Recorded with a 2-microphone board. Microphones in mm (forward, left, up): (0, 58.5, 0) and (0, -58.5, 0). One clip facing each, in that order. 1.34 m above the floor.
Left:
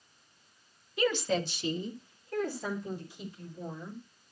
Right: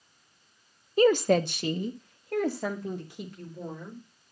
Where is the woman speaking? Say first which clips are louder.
Right 8 dB; 40° right (ahead or behind), 0.8 m; by 4.0 s 90° right, 4.5 m.